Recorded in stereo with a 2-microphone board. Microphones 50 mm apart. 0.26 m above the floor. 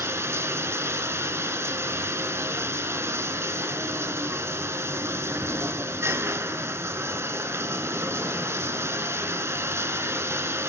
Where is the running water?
65° right (ahead or behind), 1.0 m.